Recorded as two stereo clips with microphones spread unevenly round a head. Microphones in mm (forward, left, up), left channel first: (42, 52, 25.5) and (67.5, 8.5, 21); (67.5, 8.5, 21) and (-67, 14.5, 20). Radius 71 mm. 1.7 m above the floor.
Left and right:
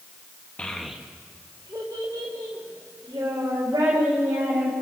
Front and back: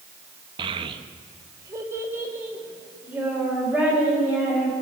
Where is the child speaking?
165° left, 1.1 m; by 4.8 s 100° right, 5.5 m.